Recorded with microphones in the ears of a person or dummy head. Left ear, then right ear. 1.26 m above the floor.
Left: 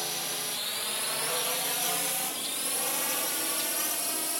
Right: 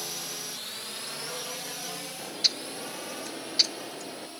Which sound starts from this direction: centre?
A drone, at 0.0 s.